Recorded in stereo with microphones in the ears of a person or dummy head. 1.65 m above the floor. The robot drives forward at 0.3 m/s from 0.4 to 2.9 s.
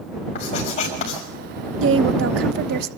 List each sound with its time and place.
0.3 s writing: 45° left (ahead or behind), 5.5 m; by 1.2 s 40° left (ahead or behind), 6 m
1.8 s a woman speaking: 75° right (ahead or behind), 0.8 m; by 2.9 s 60° right (ahead or behind), 0.9 m